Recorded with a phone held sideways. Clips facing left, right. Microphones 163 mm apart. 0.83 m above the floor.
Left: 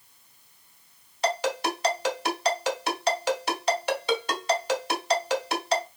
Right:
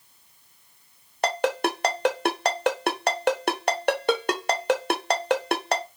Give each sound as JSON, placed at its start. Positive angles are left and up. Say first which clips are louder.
{"t": 1.2, "sound": "a ringtone", "louder": "right 2 dB", "side_deg": -65, "distance_m": 0.9}